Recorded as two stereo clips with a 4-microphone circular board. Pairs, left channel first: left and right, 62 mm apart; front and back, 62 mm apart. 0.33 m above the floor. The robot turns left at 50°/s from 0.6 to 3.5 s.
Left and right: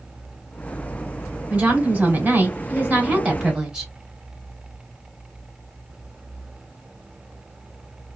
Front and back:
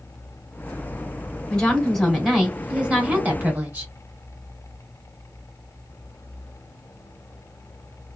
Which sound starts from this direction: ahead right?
A woman speaking, at 1.5 s.